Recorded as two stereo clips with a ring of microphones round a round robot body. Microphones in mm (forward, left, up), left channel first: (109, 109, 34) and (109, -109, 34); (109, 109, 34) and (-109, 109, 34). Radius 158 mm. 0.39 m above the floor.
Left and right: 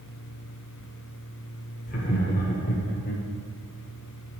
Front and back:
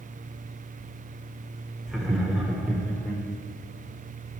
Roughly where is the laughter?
Left.